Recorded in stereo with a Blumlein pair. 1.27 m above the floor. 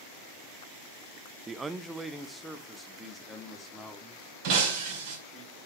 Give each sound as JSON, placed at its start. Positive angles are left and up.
{"t": 1.5, "sound": "a man speaking", "azimuth_deg": -15, "distance_m": 0.6}
{"t": 4.4, "sound": "breaking glass", "azimuth_deg": -45, "distance_m": 4.5}